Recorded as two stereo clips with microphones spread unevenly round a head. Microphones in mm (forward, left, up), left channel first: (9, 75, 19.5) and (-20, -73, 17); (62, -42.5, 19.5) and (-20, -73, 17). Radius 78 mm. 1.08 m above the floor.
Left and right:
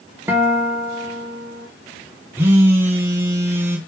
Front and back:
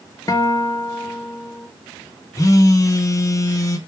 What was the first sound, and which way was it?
A guitar, 25° right.